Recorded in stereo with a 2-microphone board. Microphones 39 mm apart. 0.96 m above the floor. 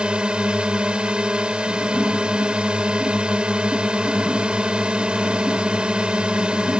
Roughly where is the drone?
Right.